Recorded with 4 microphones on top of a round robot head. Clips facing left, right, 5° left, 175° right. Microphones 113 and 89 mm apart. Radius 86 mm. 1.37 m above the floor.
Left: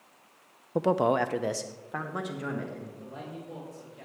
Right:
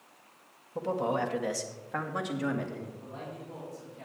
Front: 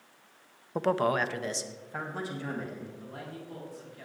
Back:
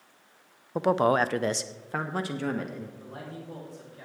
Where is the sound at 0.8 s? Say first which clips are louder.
Left 6 dB, back 4 dB; 100° left, 0.6 m; by 2.9 s 175° right, 1.7 m.